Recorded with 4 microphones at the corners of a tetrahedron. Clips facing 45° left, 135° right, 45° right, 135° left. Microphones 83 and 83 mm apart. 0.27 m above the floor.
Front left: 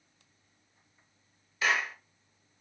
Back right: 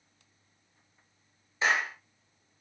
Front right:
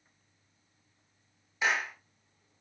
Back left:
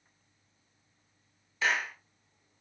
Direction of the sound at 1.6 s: 100° right.